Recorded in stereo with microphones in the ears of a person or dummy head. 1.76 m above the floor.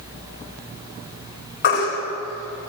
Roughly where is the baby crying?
Left.